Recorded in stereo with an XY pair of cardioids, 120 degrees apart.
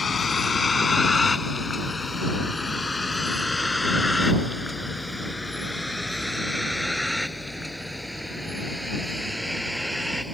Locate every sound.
0.0 s a vehicle: 25° left; by 10.3 s 5° right